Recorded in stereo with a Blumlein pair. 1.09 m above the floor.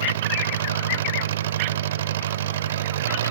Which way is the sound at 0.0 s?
55° right.